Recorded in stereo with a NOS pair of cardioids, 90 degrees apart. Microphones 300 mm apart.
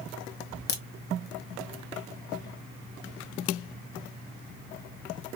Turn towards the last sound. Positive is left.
turn(degrees=35)